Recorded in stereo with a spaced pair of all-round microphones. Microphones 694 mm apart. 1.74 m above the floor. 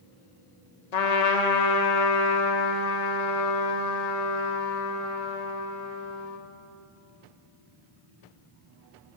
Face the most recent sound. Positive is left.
turn(degrees=70)  # may be behind; listen again after turning